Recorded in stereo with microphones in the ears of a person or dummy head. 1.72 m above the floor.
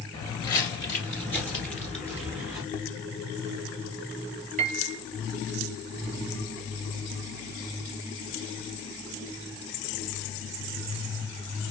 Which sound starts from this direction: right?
A piano, at 4.6 s.